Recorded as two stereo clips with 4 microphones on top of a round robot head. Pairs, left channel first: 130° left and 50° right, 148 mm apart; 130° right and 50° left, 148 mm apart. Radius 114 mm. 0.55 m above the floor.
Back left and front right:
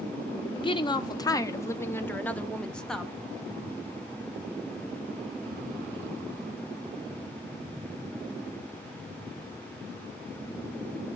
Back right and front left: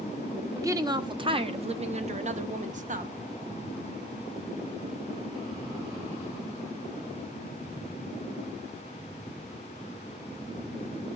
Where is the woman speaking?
105° left, 1.2 m; by 3.2 s 40° left, 1.8 m.